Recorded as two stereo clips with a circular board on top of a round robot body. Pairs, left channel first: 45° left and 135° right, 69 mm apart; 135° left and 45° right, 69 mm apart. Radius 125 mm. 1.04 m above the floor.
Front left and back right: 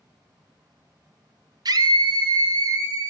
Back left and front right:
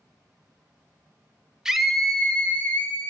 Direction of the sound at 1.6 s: 125° right.